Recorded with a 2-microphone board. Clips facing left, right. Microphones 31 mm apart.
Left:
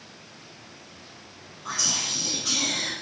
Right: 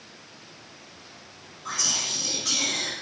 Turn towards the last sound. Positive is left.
turn(degrees=10)  # may be behind; listen again after turning